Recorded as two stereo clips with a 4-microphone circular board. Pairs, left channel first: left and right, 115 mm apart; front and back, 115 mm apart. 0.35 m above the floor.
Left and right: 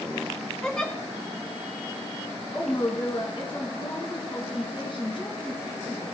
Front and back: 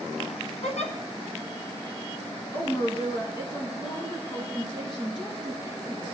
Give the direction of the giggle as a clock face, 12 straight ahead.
12 o'clock.